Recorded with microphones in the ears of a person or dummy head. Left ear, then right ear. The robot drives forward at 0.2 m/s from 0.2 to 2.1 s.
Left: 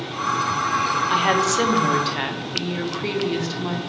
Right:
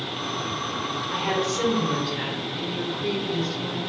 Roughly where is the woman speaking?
Left.